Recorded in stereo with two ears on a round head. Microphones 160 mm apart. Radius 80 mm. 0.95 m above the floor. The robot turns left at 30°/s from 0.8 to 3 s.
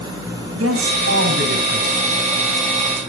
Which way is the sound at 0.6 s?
85° right.